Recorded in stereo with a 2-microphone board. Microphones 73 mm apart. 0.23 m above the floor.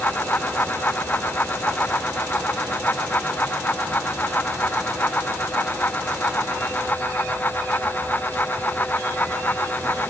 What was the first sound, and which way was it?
Only background noise.